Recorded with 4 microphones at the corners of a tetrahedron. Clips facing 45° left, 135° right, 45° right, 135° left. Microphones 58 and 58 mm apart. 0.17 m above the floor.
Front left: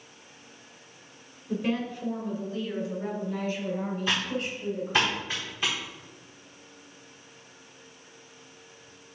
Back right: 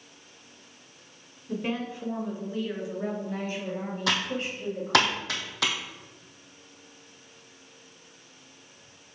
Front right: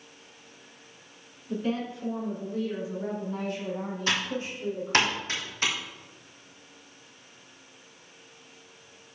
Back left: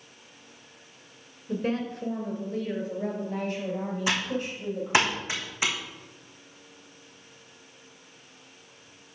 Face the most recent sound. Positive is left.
turn(degrees=-145)